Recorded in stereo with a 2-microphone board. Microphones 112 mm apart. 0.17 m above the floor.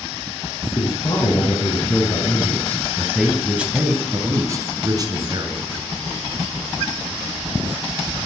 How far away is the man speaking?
About 1.8 m.